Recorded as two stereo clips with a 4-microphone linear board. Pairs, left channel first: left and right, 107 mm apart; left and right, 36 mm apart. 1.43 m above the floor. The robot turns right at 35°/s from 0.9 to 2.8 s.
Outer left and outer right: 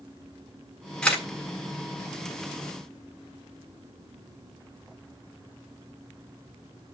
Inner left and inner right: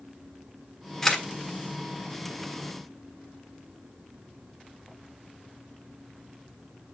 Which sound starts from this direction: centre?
A camera shutter, at 1.0 s.